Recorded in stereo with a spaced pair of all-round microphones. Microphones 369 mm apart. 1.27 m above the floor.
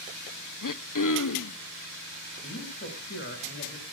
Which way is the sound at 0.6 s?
55° left (ahead or behind).